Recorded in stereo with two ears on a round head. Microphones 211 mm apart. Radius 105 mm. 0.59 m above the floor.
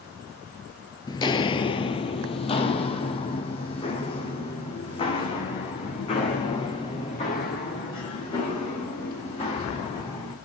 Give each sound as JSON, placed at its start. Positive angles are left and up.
{"t": 1.1, "sound": "footsteps", "side_deg": 20, "distance_m": 0.6}